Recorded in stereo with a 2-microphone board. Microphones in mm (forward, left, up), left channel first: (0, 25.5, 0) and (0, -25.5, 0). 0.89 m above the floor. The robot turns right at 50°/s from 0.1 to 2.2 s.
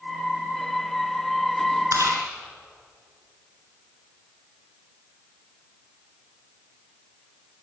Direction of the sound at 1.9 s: 80° right.